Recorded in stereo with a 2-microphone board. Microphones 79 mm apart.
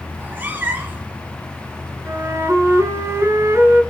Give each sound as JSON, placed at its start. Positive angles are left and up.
{"t": 0.1, "sound": "a cat meowing", "side_deg": -25, "distance_m": 1.9}
{"t": 2.0, "sound": "a flute", "side_deg": -35, "distance_m": 1.8}